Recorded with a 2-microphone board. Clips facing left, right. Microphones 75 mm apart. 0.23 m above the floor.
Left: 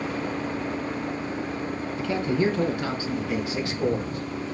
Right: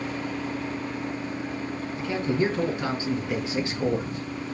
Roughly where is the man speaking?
Right.